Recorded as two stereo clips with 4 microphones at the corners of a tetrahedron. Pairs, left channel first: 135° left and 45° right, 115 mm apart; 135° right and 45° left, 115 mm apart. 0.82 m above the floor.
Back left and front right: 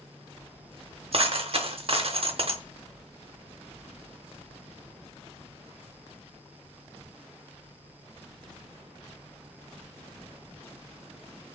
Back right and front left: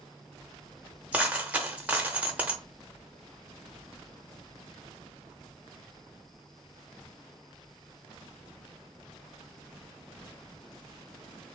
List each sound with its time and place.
1.1 s a dropped coin: 30° right, 0.7 m